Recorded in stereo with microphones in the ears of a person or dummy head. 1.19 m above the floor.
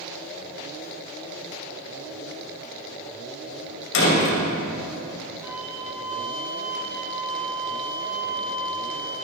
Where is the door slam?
70° left (ahead or behind), 4.5 m.